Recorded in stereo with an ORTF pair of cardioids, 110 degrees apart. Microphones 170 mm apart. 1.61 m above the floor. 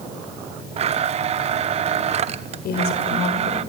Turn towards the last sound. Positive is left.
turn(degrees=70)